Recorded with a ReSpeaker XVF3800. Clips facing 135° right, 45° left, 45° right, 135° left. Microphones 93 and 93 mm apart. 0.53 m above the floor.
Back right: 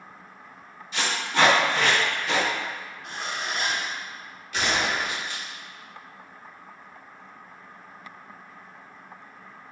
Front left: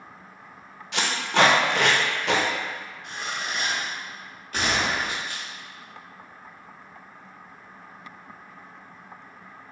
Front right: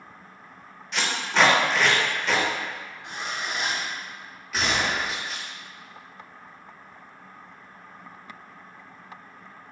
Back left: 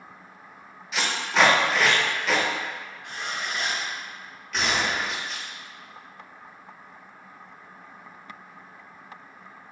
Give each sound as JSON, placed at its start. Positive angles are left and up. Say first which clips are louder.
{"t": 0.9, "sound": "tape being pulled", "louder": "front left 2 dB, even", "azimuth_deg": 50, "distance_m": 0.8}
{"t": 3.0, "sound": "a zipper", "louder": "back right 1 dB, even", "azimuth_deg": -100, "distance_m": 1.0}
{"t": 4.5, "sound": "a gunshot", "louder": "even, even", "azimuth_deg": 40, "distance_m": 1.2}